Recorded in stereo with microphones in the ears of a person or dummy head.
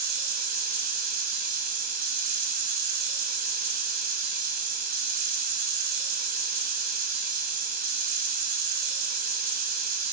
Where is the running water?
50° right (ahead or behind), 1.4 m.